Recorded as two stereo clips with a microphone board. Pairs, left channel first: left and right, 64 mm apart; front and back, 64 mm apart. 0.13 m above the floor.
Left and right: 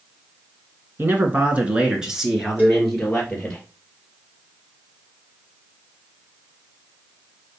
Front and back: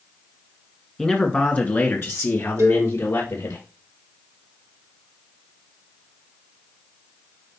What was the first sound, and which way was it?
A man speaking, 75° right.